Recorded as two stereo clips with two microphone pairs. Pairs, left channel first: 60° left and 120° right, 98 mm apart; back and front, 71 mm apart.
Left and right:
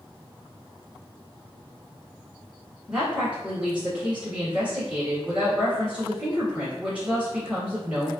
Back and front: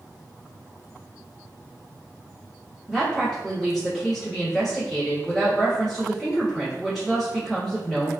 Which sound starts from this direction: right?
A woman speaking, at 2.9 s.